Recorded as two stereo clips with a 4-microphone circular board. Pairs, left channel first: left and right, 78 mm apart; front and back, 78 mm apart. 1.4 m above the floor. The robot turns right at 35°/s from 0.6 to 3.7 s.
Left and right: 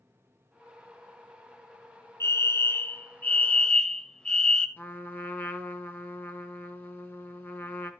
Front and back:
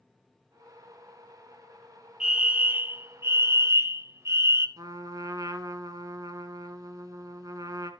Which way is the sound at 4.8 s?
150° left.